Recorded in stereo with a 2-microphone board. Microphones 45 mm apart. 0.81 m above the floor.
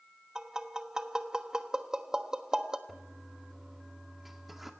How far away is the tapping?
About 1.2 m.